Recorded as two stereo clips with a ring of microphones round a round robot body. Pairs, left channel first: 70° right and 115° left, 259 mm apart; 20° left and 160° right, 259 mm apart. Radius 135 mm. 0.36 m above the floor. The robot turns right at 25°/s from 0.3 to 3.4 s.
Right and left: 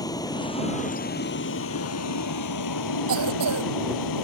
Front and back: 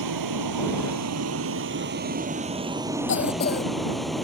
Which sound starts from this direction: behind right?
A vehicle, at 0.0 s.